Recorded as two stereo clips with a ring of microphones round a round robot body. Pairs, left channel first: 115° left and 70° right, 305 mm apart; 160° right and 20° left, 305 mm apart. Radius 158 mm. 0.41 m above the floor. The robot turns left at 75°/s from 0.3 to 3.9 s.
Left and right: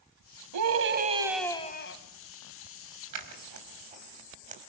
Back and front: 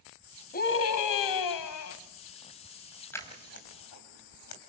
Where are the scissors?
75° right, 3.5 m; by 4.6 s 130° right, 3.5 m.